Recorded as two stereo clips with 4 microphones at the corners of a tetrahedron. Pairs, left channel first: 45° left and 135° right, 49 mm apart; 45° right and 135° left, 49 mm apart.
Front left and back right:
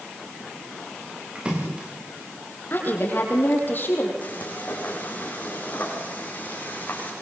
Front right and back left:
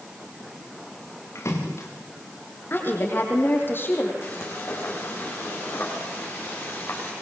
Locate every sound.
1.4 s a splash: 70° right, 4.5 m
2.7 s a woman speaking: 5° right, 6.5 m
4.2 s frying: 15° right, 7.5 m